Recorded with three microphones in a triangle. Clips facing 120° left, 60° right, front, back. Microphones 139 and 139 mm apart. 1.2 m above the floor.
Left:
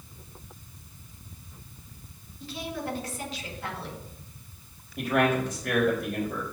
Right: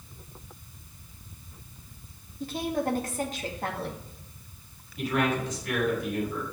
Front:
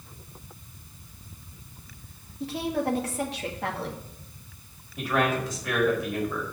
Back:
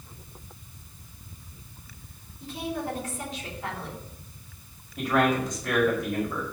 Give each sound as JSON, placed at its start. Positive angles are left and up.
{"t": 2.4, "sound": "a woman speaking", "azimuth_deg": -20, "distance_m": 2.0}
{"t": 5.0, "sound": "a man speaking", "azimuth_deg": 90, "distance_m": 4.5}